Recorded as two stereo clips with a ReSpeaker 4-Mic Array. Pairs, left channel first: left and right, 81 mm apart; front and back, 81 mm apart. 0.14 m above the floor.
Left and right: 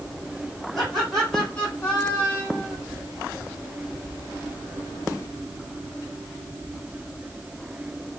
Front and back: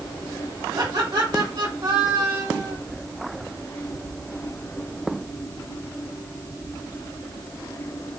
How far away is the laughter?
About 4 m.